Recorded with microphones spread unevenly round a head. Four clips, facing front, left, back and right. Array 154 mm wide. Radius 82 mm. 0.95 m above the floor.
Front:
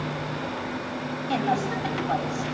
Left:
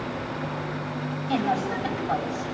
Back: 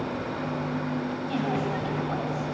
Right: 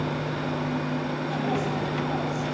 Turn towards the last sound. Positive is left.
turn(degrees=40)